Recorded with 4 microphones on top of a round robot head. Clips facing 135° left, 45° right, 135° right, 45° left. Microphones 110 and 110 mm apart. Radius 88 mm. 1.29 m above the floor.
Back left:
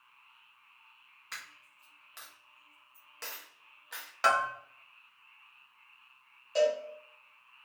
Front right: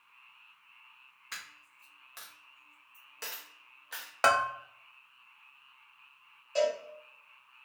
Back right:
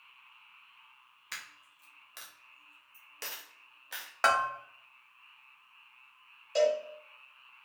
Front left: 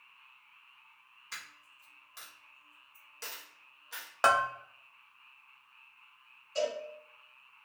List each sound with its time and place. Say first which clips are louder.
1.3 s a dropped coin: even, back right 1 dB; 130° right, 0.6 m
4.2 s a bell: front right 1 dB, front left 1 dB; 20° right, 0.8 m
6.5 s a cowbell: back left 2 dB, back right 7 dB; 140° right, 1.8 m